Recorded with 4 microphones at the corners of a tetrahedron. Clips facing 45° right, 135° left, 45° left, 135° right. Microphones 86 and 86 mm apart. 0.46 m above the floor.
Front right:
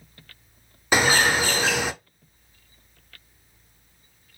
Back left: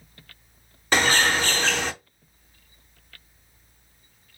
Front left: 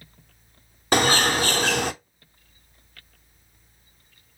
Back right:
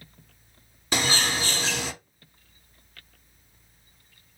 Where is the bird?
35° left, 0.5 m.